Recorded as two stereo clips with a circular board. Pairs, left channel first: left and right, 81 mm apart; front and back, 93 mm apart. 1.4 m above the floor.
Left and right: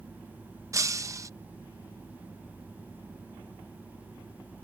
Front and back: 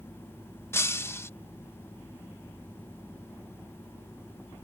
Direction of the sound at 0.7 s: 55° right.